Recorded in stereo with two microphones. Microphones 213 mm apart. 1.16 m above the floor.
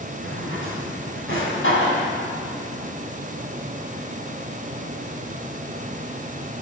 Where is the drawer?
75° left (ahead or behind), 3.5 m.